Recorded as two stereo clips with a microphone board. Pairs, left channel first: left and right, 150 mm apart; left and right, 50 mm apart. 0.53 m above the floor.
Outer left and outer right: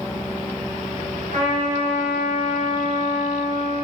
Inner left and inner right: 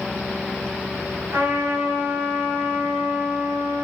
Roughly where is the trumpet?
Right.